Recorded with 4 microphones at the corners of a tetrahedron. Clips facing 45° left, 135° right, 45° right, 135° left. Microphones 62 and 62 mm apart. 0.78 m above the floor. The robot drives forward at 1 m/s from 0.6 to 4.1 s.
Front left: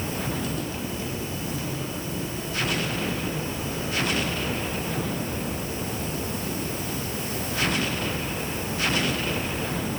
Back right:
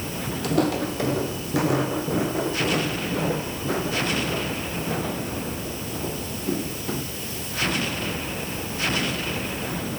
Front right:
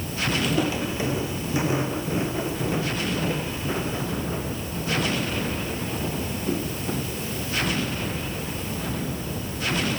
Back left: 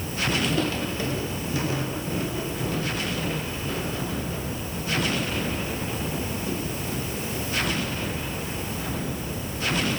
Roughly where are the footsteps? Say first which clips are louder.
Back right 8 dB, front right 1 dB; behind right.